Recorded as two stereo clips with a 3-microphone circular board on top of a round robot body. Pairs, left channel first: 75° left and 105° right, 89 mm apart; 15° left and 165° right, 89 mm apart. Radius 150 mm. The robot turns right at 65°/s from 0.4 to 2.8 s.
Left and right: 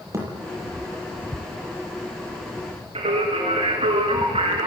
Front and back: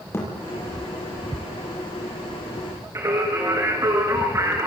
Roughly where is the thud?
Ahead right.